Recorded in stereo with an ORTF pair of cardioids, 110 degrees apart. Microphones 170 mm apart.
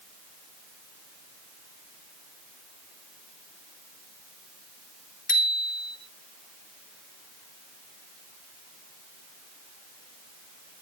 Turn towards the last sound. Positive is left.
turn(degrees=50)